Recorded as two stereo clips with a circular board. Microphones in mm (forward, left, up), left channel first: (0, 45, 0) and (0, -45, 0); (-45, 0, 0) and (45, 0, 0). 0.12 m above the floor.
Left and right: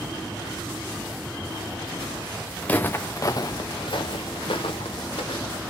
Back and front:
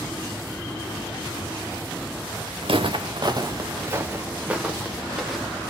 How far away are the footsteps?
About 0.8 m.